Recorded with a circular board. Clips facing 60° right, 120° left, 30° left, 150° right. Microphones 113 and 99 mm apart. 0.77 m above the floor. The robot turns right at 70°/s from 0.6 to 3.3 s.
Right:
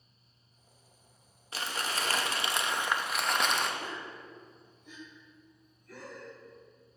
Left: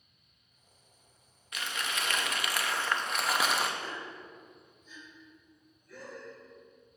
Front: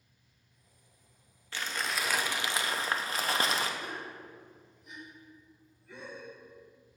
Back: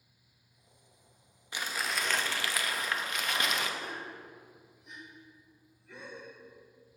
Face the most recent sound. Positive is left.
turn(degrees=-60)